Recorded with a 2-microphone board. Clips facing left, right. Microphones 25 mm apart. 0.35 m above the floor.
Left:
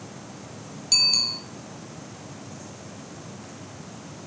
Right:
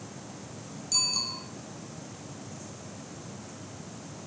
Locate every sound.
0.9 s a bicycle bell: 50° left (ahead or behind), 4.5 m